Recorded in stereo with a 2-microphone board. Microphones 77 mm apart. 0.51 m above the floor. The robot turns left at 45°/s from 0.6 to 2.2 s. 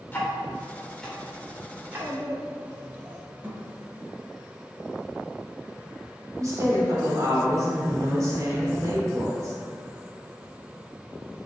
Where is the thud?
25° right (ahead or behind), 1.6 m.